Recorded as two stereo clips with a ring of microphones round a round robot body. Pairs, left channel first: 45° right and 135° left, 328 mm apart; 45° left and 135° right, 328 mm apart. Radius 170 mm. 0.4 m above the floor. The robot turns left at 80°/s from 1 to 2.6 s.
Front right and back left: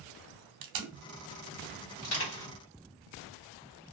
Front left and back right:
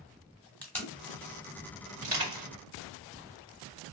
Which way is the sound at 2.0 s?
70° right.